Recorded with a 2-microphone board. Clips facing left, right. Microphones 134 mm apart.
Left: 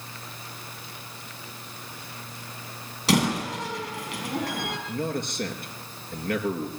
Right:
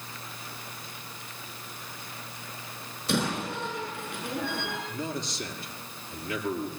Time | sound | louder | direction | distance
3.1 | a door slam | left 5 dB | 80° left | 5 m
4.9 | a man speaking | left 5 dB | 55° left (ahead or behind) | 4 m